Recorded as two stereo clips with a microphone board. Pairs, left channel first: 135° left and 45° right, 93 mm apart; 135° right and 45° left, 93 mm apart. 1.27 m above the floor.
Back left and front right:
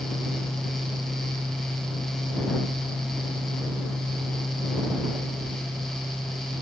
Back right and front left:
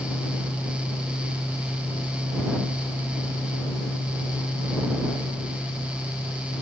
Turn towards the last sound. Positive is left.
No sound to turn to.